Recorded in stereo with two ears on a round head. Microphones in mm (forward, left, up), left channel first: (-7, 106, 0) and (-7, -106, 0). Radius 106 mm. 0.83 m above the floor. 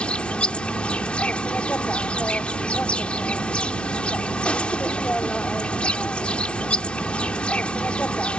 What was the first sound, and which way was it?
An insect, 5° left (ahead or behind).